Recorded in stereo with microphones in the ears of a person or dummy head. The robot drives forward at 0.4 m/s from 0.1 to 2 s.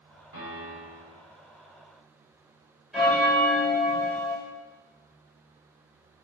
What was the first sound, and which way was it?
A piano, 60° right (ahead or behind).